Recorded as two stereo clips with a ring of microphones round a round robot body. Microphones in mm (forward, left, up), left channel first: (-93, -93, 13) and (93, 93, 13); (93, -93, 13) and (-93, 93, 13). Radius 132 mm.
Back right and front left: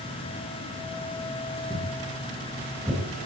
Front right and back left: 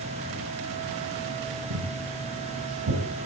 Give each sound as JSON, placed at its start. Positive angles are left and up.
{"t": 1.7, "sound": "footsteps", "azimuth_deg": 110, "distance_m": 3.5}